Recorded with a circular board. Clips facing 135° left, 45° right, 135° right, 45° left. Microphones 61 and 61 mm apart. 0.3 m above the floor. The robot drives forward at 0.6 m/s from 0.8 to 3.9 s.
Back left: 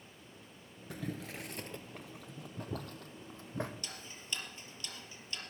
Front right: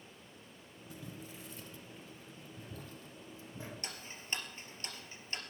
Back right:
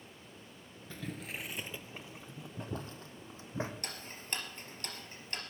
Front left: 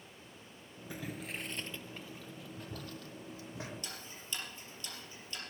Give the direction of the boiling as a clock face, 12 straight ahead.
8 o'clock.